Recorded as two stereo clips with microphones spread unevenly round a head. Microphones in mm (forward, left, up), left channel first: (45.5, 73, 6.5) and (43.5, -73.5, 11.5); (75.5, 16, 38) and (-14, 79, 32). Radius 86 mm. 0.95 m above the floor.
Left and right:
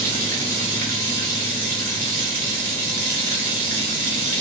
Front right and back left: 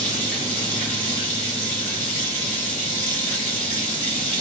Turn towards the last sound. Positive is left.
turn(degrees=-65)